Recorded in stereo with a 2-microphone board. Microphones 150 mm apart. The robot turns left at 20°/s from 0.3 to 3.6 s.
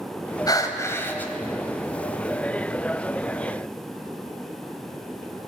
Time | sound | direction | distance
0.5 | breathing | 25° left (ahead or behind) | 2 m